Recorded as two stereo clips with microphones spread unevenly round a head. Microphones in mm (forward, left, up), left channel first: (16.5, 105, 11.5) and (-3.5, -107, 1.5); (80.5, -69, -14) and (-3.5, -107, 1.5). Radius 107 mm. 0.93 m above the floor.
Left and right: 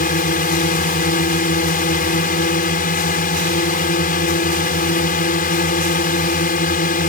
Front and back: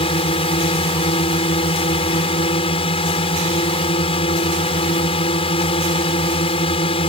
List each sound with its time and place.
0.0 s a drone: 35° left